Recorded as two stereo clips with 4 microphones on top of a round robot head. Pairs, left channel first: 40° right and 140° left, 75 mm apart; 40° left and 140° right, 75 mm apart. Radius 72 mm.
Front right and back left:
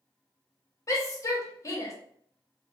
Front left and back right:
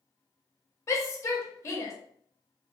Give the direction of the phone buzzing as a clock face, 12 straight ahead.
No phone buzzing in this recording.